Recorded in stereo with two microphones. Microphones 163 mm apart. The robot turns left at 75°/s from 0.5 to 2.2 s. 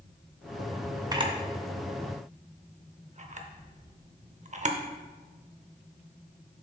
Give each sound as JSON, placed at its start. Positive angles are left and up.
{"t": 1.1, "sound": "a camera shutter", "side_deg": -25, "distance_m": 0.7}